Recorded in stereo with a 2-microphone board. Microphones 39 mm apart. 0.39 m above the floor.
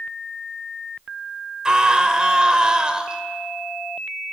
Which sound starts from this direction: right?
A scream, at 1.6 s.